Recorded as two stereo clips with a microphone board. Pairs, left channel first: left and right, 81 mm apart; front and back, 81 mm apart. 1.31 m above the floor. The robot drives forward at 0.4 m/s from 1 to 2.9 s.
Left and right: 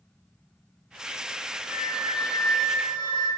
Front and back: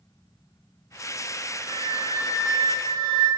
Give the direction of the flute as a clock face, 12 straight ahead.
6 o'clock.